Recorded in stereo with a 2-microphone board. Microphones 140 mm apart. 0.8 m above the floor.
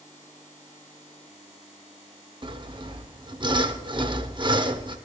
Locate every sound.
2.4 s sawing: 35° right (ahead or behind), 0.8 m